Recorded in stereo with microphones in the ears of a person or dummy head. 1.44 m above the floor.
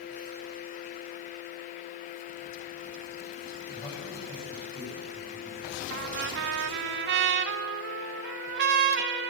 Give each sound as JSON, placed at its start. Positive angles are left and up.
{"t": 3.7, "sound": "a man speaking", "side_deg": 20, "distance_m": 9.0}
{"t": 5.9, "sound": "a trumpet", "side_deg": -60, "distance_m": 1.6}